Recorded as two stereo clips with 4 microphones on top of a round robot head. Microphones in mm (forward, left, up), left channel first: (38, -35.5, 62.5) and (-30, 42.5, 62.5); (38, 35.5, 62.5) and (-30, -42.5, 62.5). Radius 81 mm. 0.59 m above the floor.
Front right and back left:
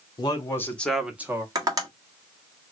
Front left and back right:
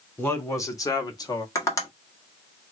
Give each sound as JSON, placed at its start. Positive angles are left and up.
{"t": 0.2, "sound": "a man speaking", "azimuth_deg": -15, "distance_m": 1.2}
{"t": 1.6, "sound": "tapping", "azimuth_deg": 95, "distance_m": 1.5}